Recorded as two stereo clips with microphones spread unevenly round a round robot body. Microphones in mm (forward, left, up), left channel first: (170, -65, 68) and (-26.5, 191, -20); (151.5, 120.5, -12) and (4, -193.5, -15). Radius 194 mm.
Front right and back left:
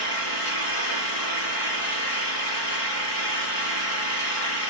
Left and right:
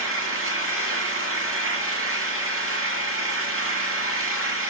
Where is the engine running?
65° right, 4.5 m.